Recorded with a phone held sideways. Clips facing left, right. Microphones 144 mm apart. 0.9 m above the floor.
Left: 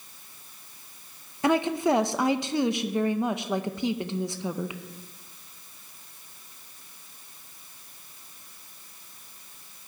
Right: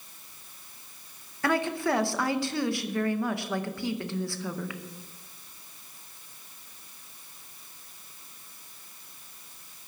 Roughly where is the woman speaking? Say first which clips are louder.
Left 4 dB; centre.